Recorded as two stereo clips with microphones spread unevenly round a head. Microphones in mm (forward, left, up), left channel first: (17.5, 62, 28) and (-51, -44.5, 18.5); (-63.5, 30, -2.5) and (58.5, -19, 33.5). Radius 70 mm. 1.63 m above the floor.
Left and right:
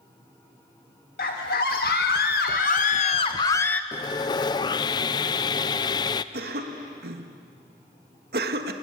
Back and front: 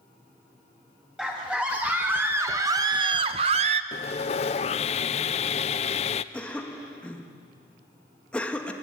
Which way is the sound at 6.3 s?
115° right.